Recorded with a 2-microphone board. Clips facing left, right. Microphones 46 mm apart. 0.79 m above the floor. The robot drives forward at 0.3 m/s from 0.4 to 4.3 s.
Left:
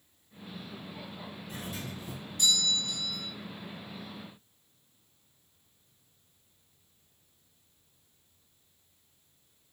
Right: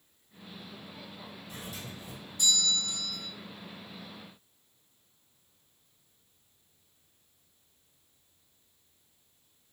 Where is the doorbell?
50° left (ahead or behind), 1.9 m; by 3.3 s 55° left (ahead or behind), 1.7 m.